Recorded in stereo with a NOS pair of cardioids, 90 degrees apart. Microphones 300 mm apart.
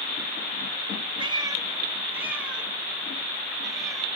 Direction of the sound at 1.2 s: 15° right.